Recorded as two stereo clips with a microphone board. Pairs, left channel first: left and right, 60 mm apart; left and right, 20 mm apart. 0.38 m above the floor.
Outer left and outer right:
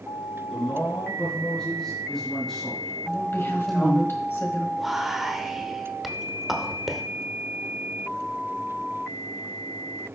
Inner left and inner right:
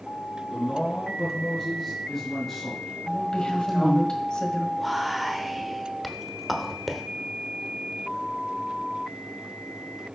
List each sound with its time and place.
0.5 s a man speaking: 10° left (ahead or behind), 3.5 m; by 4.1 s centre (ahead or behind), 0.9 m
3.1 s a woman speaking: 40° left (ahead or behind), 1.5 m
4.8 s whispering: 5° right (ahead or behind), 0.9 m